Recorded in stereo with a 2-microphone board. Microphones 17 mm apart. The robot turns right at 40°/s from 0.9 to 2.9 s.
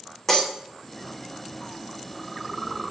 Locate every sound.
0.3 s breaking glass: 5° left (ahead or behind), 4 m